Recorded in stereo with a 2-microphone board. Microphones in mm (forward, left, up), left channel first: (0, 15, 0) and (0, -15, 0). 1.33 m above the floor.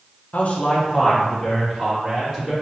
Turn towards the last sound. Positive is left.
turn(degrees=-5)  # may be behind; listen again after turning